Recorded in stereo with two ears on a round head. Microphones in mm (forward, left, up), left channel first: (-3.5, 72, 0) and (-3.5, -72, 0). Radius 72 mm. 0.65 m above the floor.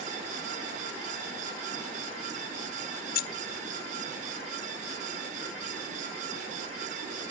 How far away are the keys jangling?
About 0.7 m.